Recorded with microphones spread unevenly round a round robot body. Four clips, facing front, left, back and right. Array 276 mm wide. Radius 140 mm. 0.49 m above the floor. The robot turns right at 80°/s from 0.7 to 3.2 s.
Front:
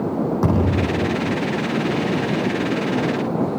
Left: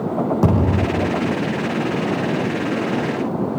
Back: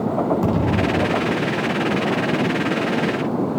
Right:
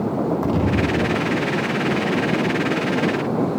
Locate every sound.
0.4 s a thud: 80° left, 7 m; by 1.0 s 105° left, 7 m